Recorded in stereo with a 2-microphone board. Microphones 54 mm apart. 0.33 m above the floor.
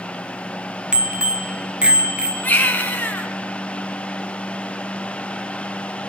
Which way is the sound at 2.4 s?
30° left (ahead or behind).